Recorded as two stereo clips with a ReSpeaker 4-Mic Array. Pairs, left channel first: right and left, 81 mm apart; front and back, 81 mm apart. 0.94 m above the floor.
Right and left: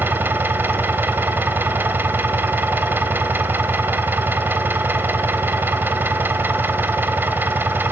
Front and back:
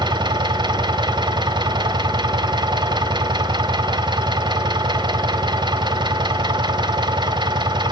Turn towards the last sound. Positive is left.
turn(degrees=155)